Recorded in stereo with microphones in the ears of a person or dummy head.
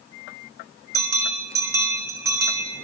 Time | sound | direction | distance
0.9 | a bell | 15° right (ahead or behind) | 2 m